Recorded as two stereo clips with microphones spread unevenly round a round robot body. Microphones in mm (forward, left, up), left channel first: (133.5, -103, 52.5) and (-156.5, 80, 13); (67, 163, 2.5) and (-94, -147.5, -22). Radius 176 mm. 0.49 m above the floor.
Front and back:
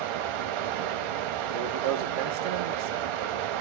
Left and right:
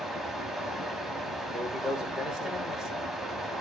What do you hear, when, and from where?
0.0 s running water: 150° left, 0.7 m
1.5 s a man speaking: 155° left, 1.1 m